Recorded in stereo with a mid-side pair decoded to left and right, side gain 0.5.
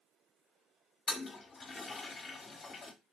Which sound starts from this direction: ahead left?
A toilet flushing, at 1.1 s.